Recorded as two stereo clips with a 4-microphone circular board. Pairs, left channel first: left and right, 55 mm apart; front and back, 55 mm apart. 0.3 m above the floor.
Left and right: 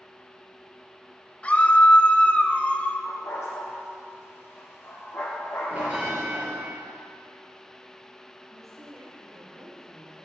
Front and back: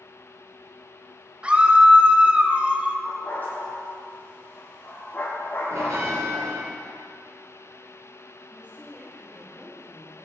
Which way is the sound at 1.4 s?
130° left.